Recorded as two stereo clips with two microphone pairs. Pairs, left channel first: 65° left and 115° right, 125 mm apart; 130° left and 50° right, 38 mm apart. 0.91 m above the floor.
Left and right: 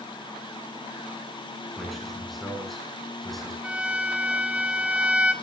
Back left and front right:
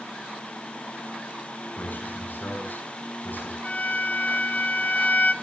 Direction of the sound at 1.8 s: 155° left.